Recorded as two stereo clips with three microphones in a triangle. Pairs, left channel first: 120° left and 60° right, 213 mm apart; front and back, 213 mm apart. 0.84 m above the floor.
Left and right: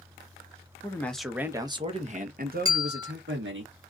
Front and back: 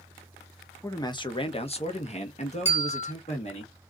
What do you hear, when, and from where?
0.8 s a man speaking: 60° left, 0.7 m; by 3.6 s 55° right, 1.4 m
2.6 s a bell: 55° right, 1.3 m